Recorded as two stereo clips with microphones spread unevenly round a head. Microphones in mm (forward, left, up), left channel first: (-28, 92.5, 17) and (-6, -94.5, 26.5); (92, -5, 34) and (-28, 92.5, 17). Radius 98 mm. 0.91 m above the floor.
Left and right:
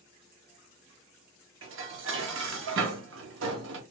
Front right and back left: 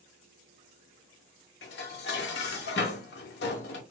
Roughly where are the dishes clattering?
Ahead right.